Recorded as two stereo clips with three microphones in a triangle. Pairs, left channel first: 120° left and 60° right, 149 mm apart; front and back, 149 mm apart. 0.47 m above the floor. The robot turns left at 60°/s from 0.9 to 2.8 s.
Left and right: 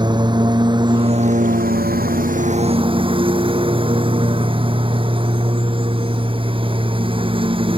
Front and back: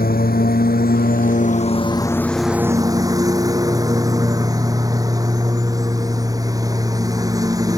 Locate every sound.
0.0 s a lawn mower: straight ahead; by 7.8 s 115° right